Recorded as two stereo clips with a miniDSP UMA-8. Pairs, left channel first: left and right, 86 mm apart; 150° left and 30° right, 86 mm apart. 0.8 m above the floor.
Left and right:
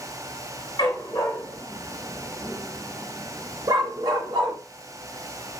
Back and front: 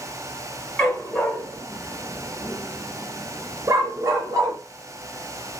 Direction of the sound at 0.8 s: 80° left.